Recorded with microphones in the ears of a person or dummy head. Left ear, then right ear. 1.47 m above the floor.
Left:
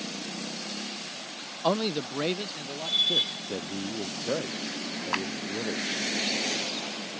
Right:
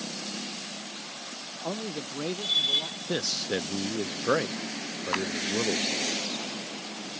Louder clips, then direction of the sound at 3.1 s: Left 2 dB; 50° right (ahead or behind).